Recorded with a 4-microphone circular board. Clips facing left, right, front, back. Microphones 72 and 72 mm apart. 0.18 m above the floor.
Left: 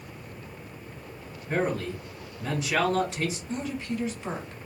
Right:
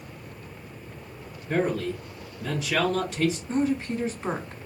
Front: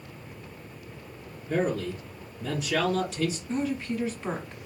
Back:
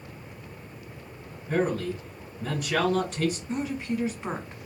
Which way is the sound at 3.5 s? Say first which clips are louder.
Right 6 dB, front 1 dB; 115° right.